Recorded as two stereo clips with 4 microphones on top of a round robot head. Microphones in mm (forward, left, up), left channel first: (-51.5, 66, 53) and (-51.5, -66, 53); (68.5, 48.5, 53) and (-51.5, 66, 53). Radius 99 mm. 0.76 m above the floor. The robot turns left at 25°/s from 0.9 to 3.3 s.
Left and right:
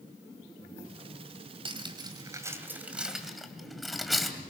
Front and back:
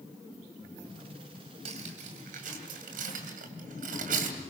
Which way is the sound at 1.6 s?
140° right.